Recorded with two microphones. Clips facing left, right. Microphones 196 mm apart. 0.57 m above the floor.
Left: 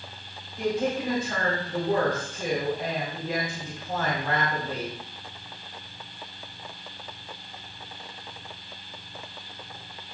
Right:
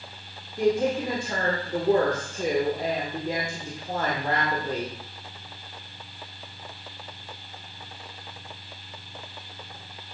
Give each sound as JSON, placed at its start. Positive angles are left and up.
{"t": 0.6, "sound": "a woman speaking", "side_deg": -45, "distance_m": 1.7}